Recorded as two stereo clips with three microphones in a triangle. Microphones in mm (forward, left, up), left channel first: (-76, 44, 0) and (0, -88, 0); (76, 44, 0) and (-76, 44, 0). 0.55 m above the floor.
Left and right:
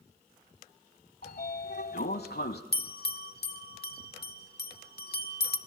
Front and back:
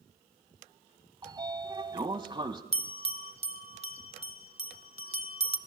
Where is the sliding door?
120° left, 1.0 m.